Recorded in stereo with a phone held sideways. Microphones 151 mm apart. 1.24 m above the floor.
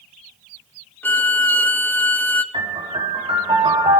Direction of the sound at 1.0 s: 10° left (ahead or behind).